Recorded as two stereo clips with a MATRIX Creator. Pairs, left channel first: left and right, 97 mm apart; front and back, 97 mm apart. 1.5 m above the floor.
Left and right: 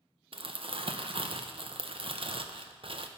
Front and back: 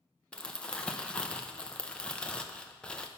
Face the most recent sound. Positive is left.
turn(degrees=-80)